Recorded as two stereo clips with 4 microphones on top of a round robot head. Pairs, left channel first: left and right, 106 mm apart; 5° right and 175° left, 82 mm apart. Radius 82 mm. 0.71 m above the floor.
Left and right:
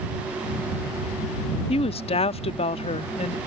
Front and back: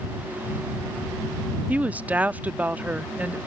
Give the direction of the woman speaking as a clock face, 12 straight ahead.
8 o'clock.